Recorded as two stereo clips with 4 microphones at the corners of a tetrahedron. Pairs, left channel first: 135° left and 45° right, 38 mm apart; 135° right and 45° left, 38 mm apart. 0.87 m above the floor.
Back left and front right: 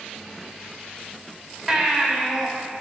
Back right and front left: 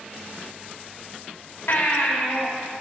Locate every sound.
1.7 s a baby crying: 130° right, 1.3 m